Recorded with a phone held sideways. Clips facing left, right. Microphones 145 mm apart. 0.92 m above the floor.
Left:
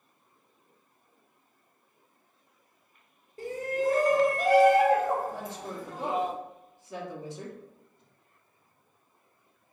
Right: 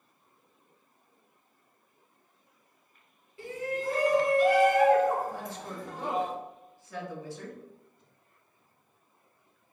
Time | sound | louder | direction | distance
3.4 | a shout | left 4 dB | 40° left (ahead or behind) | 1.3 m
5.3 | a woman speaking | left 1 dB | 20° left (ahead or behind) | 1.5 m